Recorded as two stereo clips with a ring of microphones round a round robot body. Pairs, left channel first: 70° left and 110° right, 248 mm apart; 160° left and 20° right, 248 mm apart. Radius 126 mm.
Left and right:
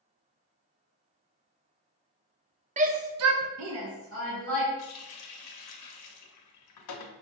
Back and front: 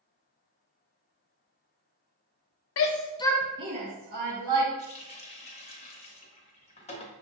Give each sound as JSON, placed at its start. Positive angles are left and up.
{"t": 2.8, "sound": "a shout", "azimuth_deg": -175, "distance_m": 0.7}
{"t": 4.8, "sound": "a running tap", "azimuth_deg": 90, "distance_m": 0.7}